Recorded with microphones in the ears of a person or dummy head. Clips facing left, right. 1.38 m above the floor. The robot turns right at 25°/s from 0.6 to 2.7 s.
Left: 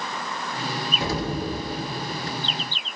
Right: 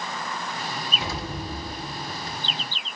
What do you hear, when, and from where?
1.0 s an explosion: 35° left, 1.6 m; by 2.4 s 70° left, 1.6 m